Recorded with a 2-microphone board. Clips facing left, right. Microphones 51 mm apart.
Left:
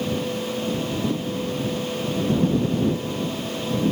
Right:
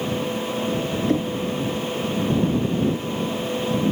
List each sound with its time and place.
1.1 s knocking: 65° right (ahead or behind)